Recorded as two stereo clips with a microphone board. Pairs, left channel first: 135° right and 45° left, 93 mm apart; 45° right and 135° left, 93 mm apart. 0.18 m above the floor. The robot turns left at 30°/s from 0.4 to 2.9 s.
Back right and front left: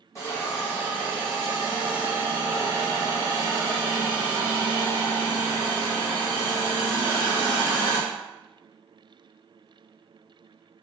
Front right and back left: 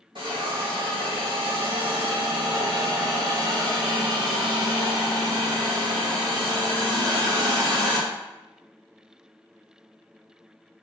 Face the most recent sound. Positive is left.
turn(degrees=90)